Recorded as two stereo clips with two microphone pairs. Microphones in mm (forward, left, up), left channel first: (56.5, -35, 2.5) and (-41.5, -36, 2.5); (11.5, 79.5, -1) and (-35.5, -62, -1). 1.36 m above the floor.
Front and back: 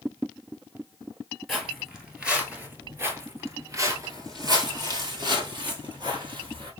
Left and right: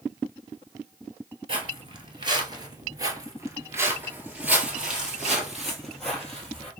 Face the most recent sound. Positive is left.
turn(degrees=155)